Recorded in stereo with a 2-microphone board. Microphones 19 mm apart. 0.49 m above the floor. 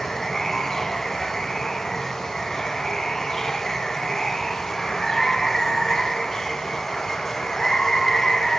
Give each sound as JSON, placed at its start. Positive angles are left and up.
{"t": 0.0, "sound": "running water", "side_deg": 25, "distance_m": 2.5}